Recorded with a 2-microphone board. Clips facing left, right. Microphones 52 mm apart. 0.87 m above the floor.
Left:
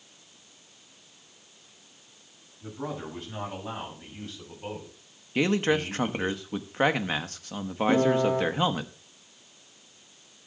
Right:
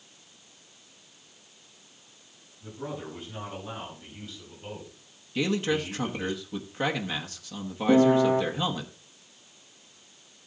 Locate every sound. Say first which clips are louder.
2.6 s a man speaking: left 2 dB; 75° left (ahead or behind), 8 m; by 6.3 s 35° left (ahead or behind), 5.5 m
5.3 s a man speaking: left 3 dB; 40° left (ahead or behind), 1.1 m
7.9 s a piano: right 3 dB; 20° right (ahead or behind), 1.1 m